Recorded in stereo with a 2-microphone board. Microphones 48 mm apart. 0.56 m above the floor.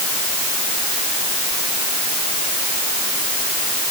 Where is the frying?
No frying in this recording.